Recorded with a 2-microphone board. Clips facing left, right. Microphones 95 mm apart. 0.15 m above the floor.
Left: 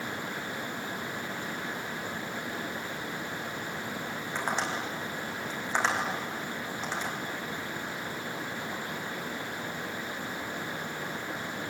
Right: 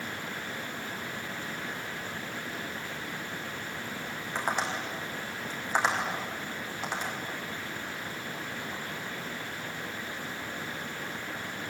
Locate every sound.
4.3 s tapping: 10° right (ahead or behind), 6 m